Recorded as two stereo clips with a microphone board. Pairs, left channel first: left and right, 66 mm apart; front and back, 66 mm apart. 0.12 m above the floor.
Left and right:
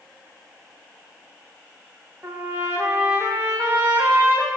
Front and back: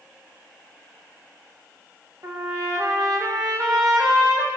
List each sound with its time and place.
2.2 s a trumpet: 150° right, 7.5 m